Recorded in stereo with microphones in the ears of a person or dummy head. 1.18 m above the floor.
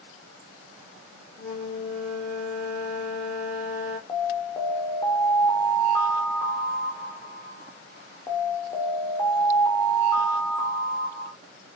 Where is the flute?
70° left (ahead or behind), 2 m.